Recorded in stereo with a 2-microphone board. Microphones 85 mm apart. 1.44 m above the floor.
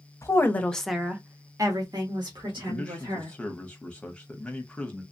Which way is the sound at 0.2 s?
35° left (ahead or behind).